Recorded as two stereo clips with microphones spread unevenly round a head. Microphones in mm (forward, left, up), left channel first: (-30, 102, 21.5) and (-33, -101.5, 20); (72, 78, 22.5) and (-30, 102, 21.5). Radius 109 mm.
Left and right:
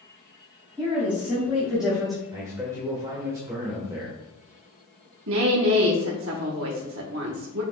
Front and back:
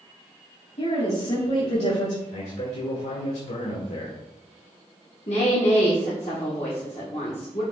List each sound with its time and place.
0.8 s a woman speaking: 10° right, 3 m; by 2.2 s straight ahead, 1.9 m
2.3 s a man speaking: 15° right, 1.5 m
5.3 s a woman speaking: 65° right, 1.2 m